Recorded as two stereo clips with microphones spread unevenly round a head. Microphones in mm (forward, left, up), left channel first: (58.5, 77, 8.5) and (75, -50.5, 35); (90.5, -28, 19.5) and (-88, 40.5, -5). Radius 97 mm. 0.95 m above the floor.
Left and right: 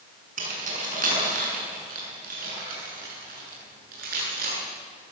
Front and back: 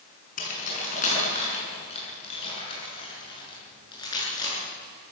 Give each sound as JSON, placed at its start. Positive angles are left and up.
{"t": 0.4, "sound": "keys jangling", "azimuth_deg": -70, "distance_m": 7.0}